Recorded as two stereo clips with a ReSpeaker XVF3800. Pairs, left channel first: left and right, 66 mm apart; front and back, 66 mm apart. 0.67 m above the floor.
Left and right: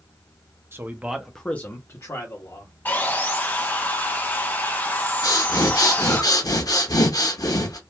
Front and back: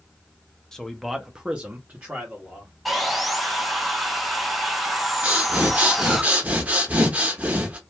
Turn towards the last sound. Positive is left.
turn(degrees=115)